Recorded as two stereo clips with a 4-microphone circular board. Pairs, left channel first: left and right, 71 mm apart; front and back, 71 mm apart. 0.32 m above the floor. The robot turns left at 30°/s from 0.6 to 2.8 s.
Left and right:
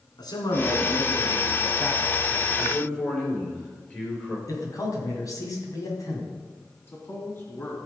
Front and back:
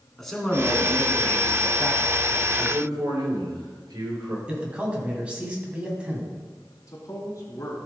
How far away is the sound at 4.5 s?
About 2.5 m.